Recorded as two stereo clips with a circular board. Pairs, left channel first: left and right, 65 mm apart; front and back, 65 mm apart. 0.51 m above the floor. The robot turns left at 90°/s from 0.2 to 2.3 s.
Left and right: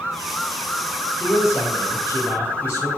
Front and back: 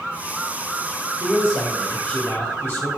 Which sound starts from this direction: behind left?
A man speaking, at 1.2 s.